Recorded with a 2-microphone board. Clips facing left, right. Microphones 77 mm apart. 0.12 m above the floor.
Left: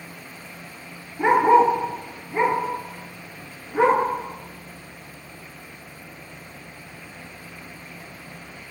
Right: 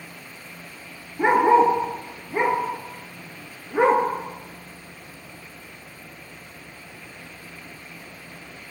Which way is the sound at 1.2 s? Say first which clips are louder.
Left 1 dB; 20° right (ahead or behind).